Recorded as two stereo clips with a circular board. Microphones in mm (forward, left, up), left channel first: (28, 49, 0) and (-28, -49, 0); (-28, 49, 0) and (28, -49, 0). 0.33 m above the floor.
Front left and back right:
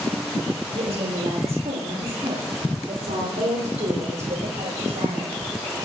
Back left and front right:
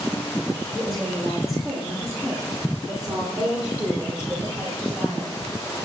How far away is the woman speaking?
About 9 m.